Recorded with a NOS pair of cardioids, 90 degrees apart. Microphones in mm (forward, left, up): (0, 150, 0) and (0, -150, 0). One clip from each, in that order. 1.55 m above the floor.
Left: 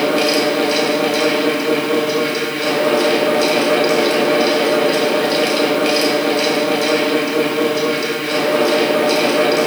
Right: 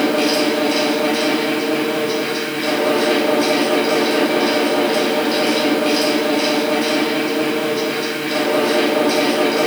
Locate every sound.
0.0 s a fan: 35° left, 3 m